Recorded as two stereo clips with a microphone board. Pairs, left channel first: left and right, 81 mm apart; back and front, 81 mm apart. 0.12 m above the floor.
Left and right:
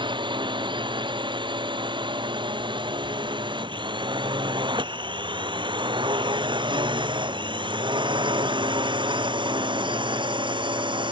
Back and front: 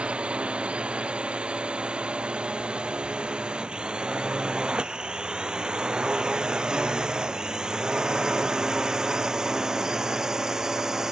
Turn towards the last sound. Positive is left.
turn(degrees=-85)